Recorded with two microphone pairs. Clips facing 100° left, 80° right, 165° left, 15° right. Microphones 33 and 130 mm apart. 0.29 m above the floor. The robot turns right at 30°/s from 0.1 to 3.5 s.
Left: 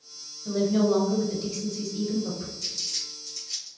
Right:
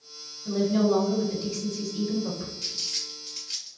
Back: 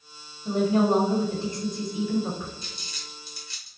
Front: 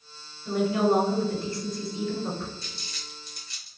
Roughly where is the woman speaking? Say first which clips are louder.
Even, back 2 dB; behind.